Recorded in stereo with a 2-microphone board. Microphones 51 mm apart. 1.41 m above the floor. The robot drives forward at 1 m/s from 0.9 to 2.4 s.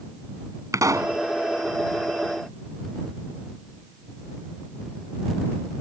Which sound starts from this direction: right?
A pop, at 0.7 s.